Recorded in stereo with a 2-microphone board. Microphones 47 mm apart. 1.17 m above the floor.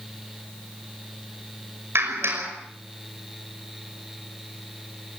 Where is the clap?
60° right (ahead or behind), 5.5 m.